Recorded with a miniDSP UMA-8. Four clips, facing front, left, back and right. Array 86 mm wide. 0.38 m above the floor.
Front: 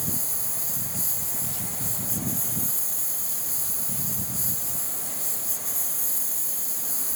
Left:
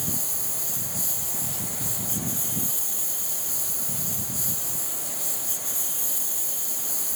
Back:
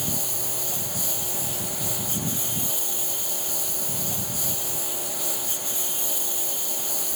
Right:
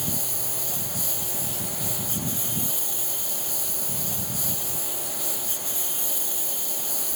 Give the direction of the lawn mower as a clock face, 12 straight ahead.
5 o'clock.